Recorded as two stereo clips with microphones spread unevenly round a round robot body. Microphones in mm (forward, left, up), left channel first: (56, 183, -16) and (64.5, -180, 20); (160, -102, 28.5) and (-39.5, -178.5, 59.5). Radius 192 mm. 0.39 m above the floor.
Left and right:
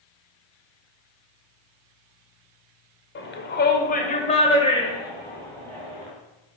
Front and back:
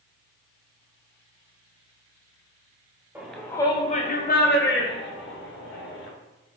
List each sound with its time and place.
3.1 s a shout: 110° left, 1.1 m; by 6.1 s 5° left, 3 m